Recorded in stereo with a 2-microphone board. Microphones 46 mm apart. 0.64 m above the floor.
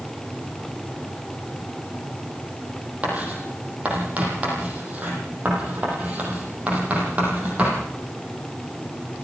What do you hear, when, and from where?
3.0 s writing: 30° right (ahead or behind), 7 m